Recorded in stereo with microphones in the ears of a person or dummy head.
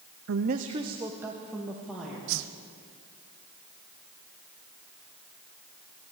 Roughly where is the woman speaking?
Right.